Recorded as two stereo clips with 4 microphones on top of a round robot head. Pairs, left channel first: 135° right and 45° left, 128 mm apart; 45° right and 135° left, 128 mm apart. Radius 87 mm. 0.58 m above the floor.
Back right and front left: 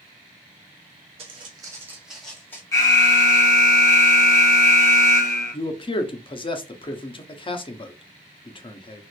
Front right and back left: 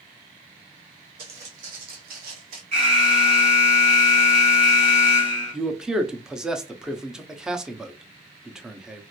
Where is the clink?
I don't hear a clink.